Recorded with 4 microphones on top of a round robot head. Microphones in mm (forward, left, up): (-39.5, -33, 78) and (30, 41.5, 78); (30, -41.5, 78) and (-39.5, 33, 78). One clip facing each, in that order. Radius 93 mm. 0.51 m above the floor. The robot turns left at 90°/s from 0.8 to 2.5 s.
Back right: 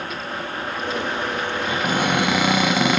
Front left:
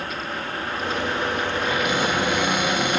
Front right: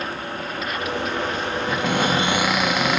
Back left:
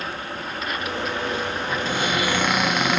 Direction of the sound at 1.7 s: 60° right.